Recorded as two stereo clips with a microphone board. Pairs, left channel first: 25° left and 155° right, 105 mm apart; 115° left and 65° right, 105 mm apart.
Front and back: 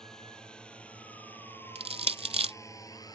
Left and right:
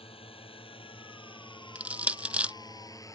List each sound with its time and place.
0.0 s a drone: 105° left; by 3.1 s 65° left
1.8 s crushing: 145° right